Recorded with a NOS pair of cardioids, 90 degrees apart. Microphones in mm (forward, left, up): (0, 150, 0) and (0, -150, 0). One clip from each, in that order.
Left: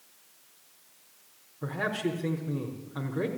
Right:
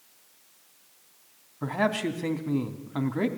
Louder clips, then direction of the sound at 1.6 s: Right 4 dB; 70° right.